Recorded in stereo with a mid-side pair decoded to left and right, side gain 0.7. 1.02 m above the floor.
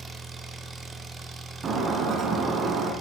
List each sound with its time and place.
0.0 s an engine running: 20° right, 1.9 m
1.6 s breaking glass: 35° right, 3.5 m